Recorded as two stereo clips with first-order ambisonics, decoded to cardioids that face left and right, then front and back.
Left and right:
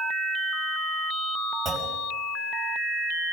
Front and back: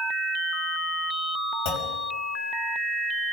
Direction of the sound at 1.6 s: Straight ahead.